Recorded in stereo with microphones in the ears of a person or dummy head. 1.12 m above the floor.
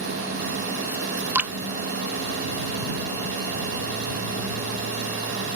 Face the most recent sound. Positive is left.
turn(degrees=-5)  # may be behind; listen again after turning